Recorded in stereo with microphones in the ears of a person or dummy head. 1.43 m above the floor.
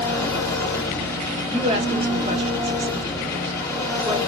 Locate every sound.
0.0 s an engine running: 20° left (ahead or behind), 1.3 m
1.5 s a woman speaking: 30° right (ahead or behind), 0.7 m